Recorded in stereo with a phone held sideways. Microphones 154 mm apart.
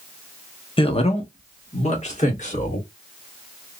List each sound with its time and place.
0.8 s a man speaking: 35° left (ahead or behind), 0.7 m; by 2.8 s 55° left (ahead or behind), 2 m